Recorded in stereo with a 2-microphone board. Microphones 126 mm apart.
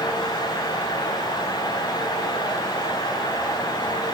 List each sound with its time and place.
Only background noise.